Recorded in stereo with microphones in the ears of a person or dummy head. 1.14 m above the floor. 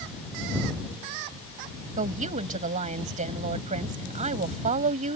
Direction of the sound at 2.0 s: 40° right (ahead or behind).